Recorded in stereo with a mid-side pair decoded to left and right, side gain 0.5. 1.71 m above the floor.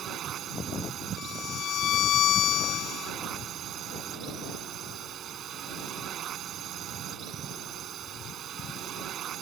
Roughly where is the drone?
Ahead right.